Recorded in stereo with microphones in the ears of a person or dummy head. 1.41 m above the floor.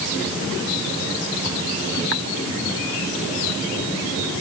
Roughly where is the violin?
I don't hear a violin.